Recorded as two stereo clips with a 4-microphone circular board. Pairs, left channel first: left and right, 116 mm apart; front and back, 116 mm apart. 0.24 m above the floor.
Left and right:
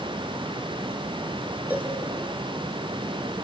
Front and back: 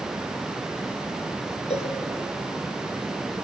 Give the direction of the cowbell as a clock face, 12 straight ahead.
1 o'clock.